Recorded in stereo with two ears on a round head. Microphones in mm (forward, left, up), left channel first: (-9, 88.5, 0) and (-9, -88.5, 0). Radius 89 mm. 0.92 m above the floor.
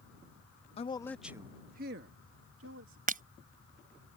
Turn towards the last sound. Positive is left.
turn(degrees=-45)  # may be behind; listen again after turning